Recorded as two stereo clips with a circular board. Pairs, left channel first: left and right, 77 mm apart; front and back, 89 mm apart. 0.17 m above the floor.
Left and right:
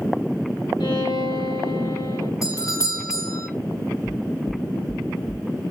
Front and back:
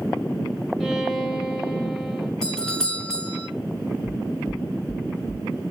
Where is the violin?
90° left, 3.5 m.